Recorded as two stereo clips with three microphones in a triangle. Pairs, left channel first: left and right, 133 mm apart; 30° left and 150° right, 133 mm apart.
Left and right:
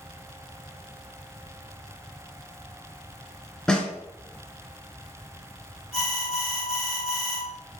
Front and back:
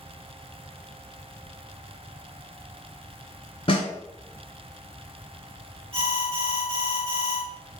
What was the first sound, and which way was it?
A snare drum, 5° left.